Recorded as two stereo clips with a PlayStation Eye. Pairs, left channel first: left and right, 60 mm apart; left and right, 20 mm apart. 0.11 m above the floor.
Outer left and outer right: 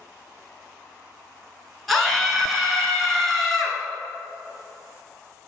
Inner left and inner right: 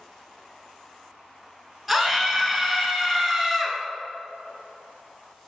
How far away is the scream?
About 1.7 m.